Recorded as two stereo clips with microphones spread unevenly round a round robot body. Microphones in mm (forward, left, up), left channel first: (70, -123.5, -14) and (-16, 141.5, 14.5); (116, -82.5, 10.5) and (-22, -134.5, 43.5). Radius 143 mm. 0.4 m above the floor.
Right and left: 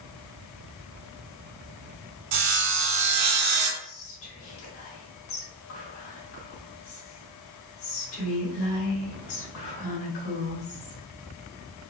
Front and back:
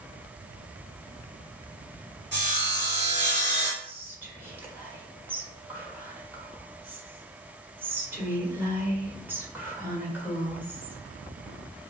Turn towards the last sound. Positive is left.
turn(degrees=-75)